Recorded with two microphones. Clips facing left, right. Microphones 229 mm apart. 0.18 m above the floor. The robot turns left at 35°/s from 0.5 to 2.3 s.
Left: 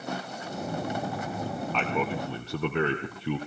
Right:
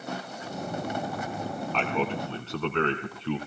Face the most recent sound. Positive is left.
turn(degrees=15)  # may be behind; listen again after turning